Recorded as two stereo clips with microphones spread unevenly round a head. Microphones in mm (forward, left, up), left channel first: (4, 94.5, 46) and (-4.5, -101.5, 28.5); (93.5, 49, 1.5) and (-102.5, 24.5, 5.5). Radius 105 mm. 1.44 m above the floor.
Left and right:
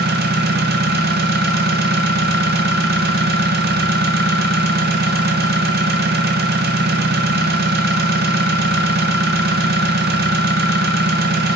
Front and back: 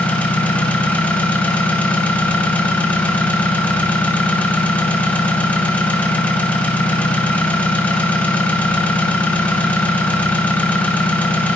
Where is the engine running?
75° right, 0.8 m.